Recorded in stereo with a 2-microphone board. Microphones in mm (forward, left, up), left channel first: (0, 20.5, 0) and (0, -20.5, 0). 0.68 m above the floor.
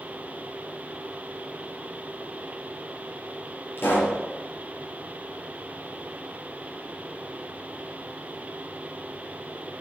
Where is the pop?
75° left (ahead or behind), 5 m.